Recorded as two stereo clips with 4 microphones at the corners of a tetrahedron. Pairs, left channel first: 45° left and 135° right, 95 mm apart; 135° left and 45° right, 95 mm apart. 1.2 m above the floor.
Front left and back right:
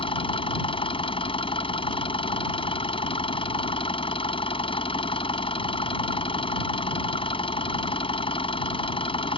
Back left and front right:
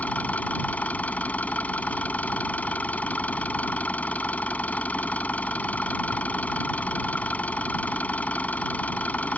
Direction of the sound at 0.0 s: 60° left.